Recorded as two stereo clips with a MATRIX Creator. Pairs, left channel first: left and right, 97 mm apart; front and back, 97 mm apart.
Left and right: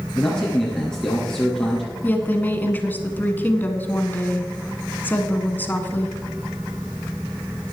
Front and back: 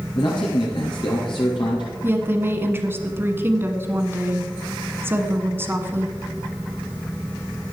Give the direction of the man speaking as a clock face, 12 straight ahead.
12 o'clock.